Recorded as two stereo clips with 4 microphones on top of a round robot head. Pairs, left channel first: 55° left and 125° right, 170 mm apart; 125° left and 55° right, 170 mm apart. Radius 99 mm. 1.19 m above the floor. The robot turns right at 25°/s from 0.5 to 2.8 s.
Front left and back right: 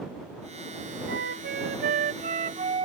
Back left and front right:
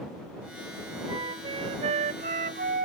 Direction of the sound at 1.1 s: 120° right.